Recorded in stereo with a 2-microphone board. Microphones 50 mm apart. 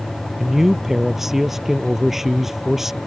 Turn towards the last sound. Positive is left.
turn(degrees=-5)  # may be behind; listen again after turning